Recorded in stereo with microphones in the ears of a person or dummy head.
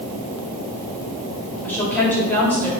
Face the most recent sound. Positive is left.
turn(degrees=10)  # may be behind; listen again after turning